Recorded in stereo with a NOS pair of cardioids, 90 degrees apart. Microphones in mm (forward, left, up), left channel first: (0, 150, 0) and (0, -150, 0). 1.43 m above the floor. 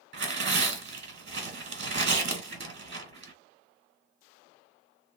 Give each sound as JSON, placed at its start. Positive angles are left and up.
{"t": 0.1, "sound": "tearing paper", "azimuth_deg": -40, "distance_m": 1.6}